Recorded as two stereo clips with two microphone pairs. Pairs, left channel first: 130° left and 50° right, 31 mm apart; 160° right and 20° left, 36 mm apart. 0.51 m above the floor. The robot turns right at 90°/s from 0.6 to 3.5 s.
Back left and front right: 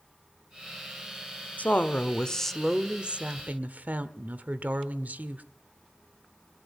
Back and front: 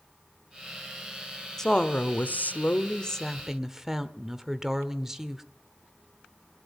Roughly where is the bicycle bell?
No bicycle bell in this recording.